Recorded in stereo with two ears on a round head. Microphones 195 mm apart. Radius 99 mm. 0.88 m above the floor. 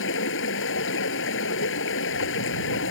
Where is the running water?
65° left (ahead or behind).